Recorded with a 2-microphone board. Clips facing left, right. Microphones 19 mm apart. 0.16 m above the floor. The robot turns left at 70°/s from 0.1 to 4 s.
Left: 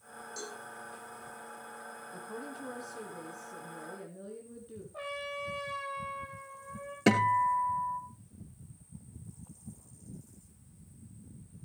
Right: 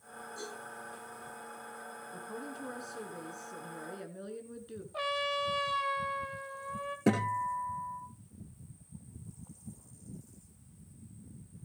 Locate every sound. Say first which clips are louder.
0.4 s a cowbell: left 1 dB; 70° left (ahead or behind), 10 m; by 0.6 s 55° left (ahead or behind), 10 m
2.1 s a woman speaking: even; 20° left, 1.7 m; by 4.8 s 110° right, 1.7 m
4.9 s a trumpet: right 6 dB; 75° right (ahead or behind), 2.5 m
7.1 s a guitar: left 5 dB; 65° left (ahead or behind), 2 m